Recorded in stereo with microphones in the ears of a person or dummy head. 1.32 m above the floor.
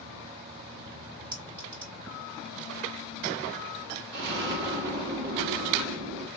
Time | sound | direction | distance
1.3 | a clink | 10° right (ahead or behind) | 1.9 m
4.1 | an explosion | 50° right (ahead or behind) | 1.6 m